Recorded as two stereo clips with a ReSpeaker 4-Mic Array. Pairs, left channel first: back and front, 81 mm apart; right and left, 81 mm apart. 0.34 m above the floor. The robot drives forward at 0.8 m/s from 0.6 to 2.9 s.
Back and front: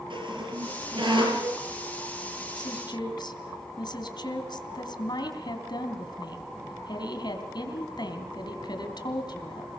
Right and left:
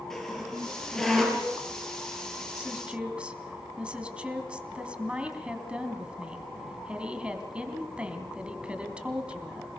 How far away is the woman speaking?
About 2.5 m.